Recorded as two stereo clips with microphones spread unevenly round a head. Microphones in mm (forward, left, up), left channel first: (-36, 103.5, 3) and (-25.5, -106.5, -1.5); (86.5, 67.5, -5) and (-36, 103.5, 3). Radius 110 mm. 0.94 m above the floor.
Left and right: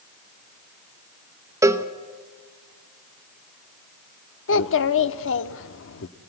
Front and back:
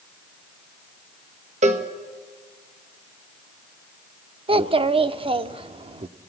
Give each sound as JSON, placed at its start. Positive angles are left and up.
{"t": 1.6, "sound": "a cowbell", "azimuth_deg": -160, "distance_m": 1.2}
{"t": 4.5, "sound": "a child speaking", "azimuth_deg": 120, "distance_m": 1.1}